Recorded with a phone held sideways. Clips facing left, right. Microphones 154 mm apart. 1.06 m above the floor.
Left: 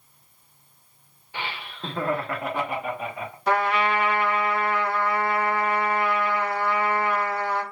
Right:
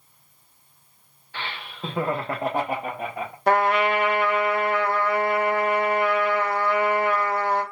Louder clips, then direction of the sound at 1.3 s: Left 1 dB; 15° left (ahead or behind).